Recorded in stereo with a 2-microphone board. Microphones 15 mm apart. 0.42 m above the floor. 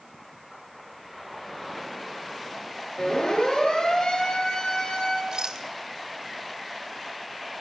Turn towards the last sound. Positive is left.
turn(degrees=-55)  # may be behind; listen again after turning